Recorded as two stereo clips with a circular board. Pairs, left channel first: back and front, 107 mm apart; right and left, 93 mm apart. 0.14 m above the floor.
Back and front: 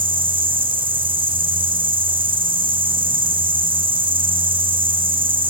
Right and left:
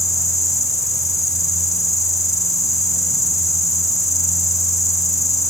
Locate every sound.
0.0 s an insect: 35° right, 3 m